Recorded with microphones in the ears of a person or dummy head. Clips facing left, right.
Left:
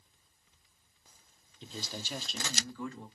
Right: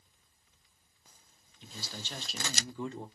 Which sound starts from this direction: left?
A man speaking, at 1.6 s.